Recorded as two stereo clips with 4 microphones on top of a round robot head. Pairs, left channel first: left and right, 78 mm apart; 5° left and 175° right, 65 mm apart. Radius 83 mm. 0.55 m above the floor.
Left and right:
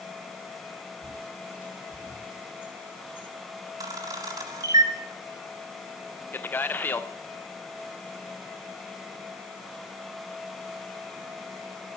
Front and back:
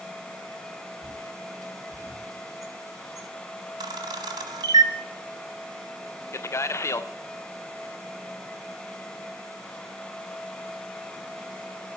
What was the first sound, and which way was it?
A bird, 160° left.